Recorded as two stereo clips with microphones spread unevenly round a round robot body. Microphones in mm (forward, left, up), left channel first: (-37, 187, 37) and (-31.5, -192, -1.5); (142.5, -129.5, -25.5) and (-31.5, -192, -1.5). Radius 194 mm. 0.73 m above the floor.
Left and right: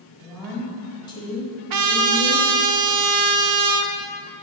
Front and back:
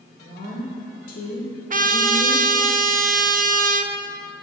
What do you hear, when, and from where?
0.2 s a woman speaking: 5° right, 1.9 m; by 2.5 s 70° left, 1.1 m
1.7 s a trumpet: 125° right, 0.6 m